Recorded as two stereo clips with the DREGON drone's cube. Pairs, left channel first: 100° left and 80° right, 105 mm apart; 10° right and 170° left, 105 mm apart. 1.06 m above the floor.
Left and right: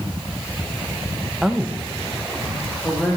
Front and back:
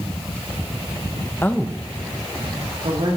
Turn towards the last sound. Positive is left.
turn(degrees=-175)